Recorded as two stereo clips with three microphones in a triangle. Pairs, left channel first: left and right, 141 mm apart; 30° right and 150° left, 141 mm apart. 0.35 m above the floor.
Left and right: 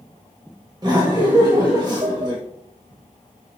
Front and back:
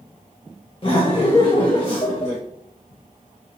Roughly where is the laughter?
Ahead right.